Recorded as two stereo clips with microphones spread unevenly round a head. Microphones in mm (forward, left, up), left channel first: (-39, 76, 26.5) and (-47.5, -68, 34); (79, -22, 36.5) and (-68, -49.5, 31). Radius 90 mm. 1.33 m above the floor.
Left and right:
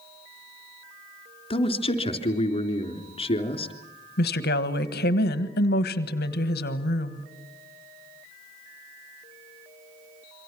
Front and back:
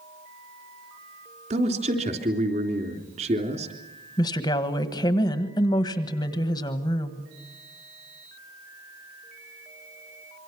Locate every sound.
1.5 s a man speaking: 140° left, 3.5 m
4.2 s a woman speaking: 80° left, 1.4 m